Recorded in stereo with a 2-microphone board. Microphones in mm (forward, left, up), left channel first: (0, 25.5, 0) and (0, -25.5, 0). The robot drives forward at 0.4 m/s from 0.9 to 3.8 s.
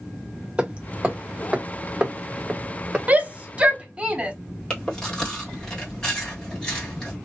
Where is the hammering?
20° right (ahead or behind), 0.8 m; by 3.0 s 15° right (ahead or behind), 1.0 m.